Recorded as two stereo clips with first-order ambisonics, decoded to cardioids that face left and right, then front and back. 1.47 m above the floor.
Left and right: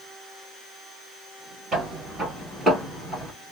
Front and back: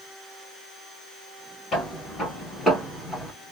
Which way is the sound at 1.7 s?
45° right.